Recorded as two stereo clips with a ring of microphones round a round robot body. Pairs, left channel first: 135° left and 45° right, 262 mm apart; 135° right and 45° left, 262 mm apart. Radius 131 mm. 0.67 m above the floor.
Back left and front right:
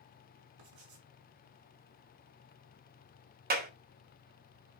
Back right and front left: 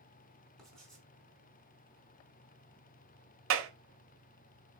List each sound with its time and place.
0.6 s writing: 45° right, 5 m
3.5 s a clap: 10° left, 1.7 m